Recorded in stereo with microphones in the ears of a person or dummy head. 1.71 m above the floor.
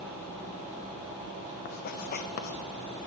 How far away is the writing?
About 0.6 m.